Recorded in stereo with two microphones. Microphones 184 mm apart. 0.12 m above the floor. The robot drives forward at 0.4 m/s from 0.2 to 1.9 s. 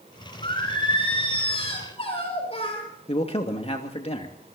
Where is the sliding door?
I don't hear a sliding door.